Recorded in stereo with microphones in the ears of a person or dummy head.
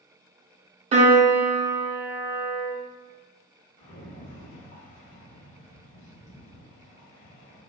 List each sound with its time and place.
0.9 s a piano: 30° right (ahead or behind), 0.6 m
3.8 s a rattle: 40° left (ahead or behind), 1.2 m